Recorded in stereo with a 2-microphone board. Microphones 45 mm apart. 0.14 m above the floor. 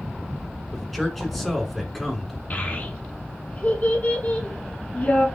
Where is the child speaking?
40° left (ahead or behind), 1.1 m.